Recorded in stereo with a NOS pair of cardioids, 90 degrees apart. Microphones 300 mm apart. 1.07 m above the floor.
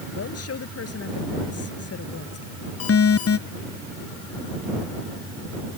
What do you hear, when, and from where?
0.1 s a woman speaking: 50° left
2.8 s an alarm: 50° left